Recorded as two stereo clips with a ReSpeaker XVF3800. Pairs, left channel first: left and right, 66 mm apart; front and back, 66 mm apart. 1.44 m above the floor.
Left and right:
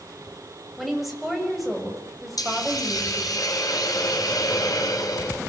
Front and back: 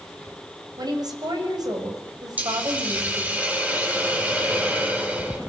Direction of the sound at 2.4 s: 115° left.